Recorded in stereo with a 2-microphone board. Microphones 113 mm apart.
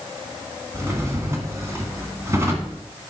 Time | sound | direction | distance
0.7 | a drawer | 25° right (ahead or behind) | 2.0 m